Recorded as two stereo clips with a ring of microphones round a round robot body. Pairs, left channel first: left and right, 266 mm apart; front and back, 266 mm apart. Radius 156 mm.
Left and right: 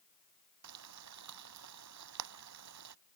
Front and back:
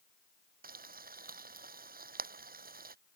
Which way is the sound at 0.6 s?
125° right.